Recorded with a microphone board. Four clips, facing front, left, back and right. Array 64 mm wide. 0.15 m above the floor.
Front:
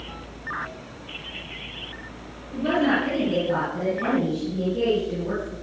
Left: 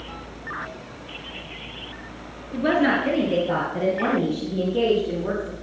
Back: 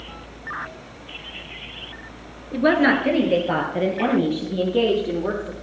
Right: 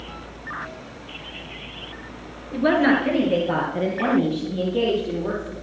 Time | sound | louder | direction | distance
2.5 | a woman speaking | right 2 dB, back 4 dB | 175° right | 3 m